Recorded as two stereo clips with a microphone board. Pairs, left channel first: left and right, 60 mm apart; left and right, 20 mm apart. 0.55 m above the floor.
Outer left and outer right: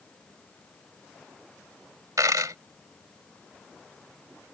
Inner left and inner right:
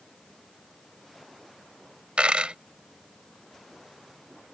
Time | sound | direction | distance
2.2 | a dropped coin | 75° right (ahead or behind) | ?